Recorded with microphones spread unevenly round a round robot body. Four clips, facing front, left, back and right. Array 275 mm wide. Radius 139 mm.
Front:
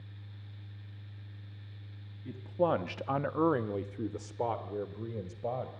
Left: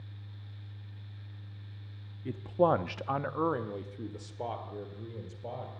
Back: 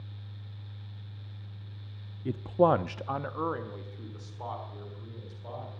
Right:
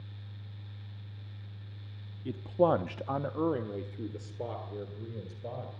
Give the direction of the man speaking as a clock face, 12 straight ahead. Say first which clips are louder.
Even, back 6 dB; 5 o'clock.